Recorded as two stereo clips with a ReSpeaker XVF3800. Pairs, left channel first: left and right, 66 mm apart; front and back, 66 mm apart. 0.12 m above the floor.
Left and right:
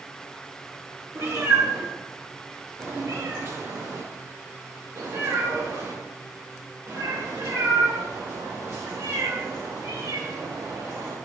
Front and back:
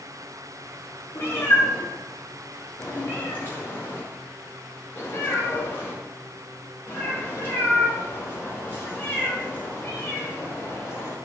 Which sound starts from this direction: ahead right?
A cat meowing, at 1.1 s.